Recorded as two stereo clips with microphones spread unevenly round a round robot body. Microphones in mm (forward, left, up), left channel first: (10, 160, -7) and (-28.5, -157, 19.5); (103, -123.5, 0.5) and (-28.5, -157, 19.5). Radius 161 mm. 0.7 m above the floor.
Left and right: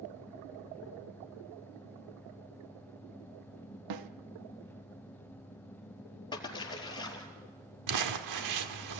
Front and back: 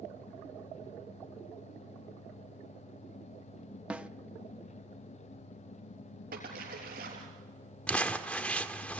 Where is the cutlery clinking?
No cutlery clinking in this recording.